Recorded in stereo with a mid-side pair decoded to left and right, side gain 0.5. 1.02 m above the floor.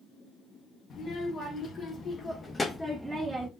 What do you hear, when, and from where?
0.9 s a child speaking: 55° left, 1.4 m; by 3.5 s 35° right, 0.5 m